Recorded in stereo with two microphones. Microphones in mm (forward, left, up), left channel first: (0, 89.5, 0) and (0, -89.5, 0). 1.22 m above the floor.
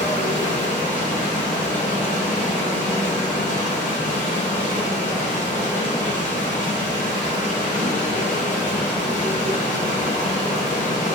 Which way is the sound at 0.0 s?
40° left (ahead or behind).